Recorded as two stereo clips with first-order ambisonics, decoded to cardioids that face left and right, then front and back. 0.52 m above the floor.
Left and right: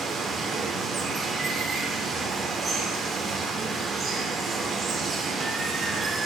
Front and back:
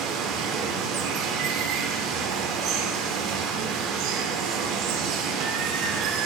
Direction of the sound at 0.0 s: 165° right.